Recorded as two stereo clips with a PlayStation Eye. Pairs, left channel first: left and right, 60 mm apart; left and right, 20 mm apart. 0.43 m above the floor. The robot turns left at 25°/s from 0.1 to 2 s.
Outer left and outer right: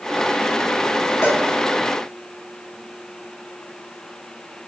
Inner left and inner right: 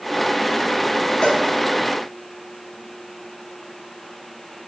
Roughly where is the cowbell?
Left.